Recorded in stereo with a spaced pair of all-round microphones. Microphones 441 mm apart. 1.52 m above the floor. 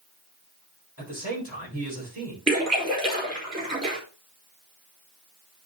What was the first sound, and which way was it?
A man speaking, 35° right (ahead or behind).